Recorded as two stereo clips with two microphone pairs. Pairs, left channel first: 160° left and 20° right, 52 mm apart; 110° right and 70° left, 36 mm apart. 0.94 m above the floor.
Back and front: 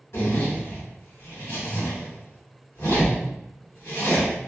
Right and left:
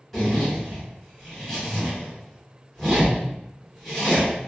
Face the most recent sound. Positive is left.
turn(degrees=165)